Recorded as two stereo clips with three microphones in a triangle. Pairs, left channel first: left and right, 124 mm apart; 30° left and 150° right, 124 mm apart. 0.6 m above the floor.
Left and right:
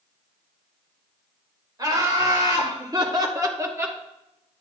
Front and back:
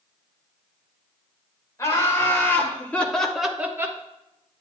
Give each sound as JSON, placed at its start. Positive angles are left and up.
{"t": 1.8, "sound": "laughter", "azimuth_deg": -35, "distance_m": 2.5}